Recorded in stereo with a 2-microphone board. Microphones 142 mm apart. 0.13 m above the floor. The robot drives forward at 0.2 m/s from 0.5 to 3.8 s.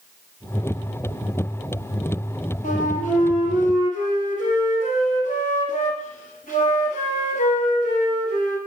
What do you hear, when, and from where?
2.6 s a flute: 70° left (ahead or behind), 1.2 m